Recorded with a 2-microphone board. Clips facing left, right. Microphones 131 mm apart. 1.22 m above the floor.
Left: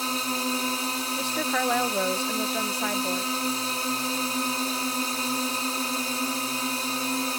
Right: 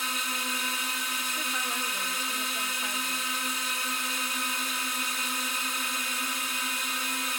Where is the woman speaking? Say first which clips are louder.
Left 9 dB; 75° left (ahead or behind).